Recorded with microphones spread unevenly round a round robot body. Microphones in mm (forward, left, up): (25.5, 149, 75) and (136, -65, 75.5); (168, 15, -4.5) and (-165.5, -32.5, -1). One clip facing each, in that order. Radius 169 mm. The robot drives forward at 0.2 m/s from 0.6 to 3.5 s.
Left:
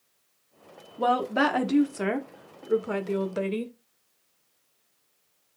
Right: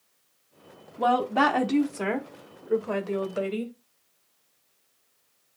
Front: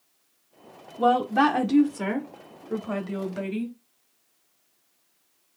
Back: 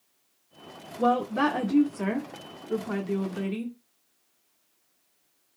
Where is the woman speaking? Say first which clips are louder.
Right 1 dB, front 2 dB; 40° left, 0.9 m; by 3.7 s 140° left, 0.9 m.